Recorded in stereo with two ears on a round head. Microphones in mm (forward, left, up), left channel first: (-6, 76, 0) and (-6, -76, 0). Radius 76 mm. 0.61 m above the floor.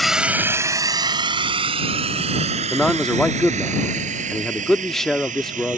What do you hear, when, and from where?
0.0 s a drone: centre (ahead or behind); by 5.8 s 55° right (ahead or behind)
2.7 s a man speaking: centre (ahead or behind)